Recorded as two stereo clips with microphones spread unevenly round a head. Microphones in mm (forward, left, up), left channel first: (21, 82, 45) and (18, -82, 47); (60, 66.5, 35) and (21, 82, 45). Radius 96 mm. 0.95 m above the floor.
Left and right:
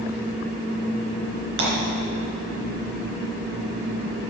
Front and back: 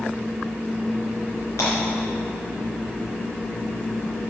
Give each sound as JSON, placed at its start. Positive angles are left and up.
{"t": 1.6, "sound": "breaking glass", "azimuth_deg": -75, "distance_m": 3.5}